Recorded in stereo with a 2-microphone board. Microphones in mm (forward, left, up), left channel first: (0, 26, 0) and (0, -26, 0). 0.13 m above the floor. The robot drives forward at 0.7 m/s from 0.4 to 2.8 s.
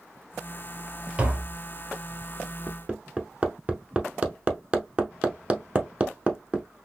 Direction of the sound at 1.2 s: 20° right (ahead or behind).